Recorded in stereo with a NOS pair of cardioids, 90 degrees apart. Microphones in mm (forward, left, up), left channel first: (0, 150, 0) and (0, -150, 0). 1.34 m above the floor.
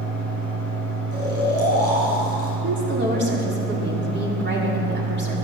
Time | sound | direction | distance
0.0 | a fan | 45° right | 5.5 m
1.1 | snoring | 55° right | 5 m
2.6 | a woman speaking | 35° right | 4 m